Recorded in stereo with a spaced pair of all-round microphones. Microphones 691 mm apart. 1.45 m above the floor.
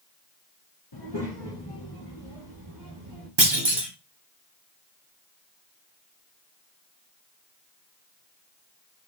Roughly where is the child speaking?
Left.